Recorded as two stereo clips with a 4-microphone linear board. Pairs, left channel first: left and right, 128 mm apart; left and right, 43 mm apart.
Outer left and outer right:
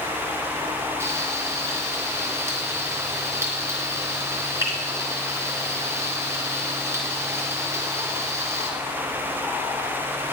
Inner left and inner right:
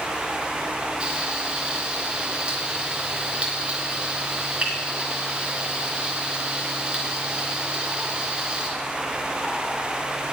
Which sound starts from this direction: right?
Frying, at 1.0 s.